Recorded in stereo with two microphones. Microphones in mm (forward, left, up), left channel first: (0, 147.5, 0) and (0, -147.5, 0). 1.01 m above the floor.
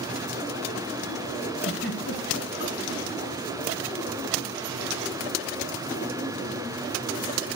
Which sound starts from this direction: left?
A giggle, at 1.6 s.